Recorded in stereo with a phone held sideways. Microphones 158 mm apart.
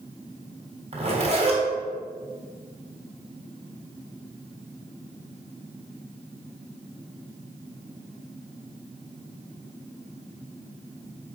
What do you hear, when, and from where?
0.9 s a zipper: 45° right (ahead or behind), 3.5 m